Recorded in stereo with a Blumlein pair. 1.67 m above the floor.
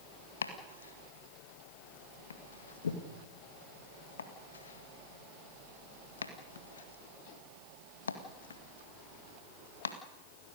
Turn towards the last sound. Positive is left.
turn(degrees=70)